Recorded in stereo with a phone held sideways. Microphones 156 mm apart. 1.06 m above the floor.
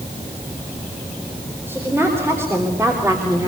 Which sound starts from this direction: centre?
A woman speaking, at 1.7 s.